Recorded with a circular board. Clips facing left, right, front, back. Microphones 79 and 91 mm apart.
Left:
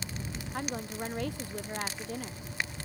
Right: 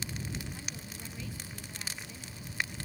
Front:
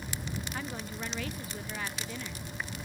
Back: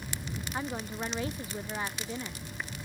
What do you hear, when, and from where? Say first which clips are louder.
0.5 s a woman speaking: left 10 dB, back 3 dB; 120° left